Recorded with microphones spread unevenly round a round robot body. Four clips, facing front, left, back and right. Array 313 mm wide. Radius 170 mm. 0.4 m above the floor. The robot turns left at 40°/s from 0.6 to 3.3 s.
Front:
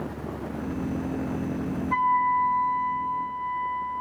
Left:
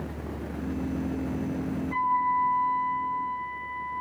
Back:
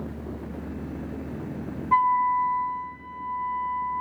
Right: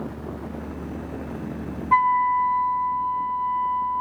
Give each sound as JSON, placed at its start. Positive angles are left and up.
{"t": 1.9, "sound": "a flute", "azimuth_deg": -100, "distance_m": 2.0}